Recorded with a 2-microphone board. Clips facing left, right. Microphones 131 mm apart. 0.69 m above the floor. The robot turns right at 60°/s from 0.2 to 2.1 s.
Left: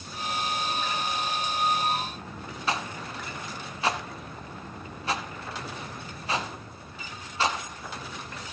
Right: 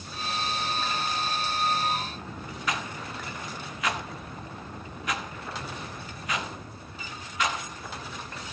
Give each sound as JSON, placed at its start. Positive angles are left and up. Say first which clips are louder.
{"t": 2.7, "sound": "a rattle", "louder": "left 2 dB", "side_deg": 30, "distance_m": 1.0}